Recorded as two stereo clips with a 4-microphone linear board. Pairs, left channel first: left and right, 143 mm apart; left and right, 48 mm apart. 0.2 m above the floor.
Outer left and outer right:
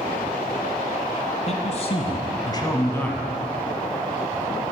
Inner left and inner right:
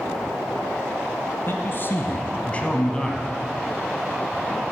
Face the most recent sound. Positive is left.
turn(degrees=5)  # may be behind; listen again after turning